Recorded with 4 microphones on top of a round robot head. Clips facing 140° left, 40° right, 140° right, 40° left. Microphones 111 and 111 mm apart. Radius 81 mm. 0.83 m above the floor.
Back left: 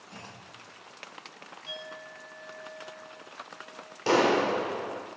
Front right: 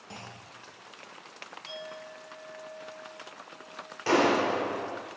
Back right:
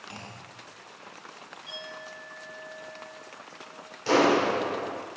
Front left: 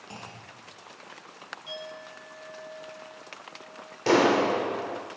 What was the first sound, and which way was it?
A clunk, 25° right.